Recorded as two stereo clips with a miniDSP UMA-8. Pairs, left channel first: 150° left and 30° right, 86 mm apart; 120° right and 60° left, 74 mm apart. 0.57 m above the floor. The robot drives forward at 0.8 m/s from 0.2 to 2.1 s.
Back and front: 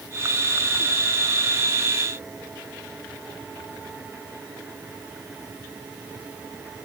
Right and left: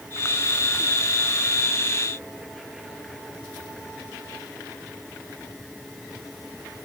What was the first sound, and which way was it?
Only background noise.